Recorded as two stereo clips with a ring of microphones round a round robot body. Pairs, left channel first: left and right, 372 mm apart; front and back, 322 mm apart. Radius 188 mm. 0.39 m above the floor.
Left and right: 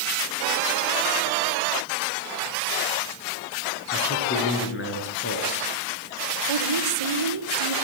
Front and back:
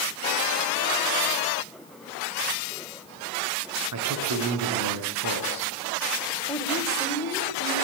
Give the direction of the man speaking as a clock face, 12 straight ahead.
7 o'clock.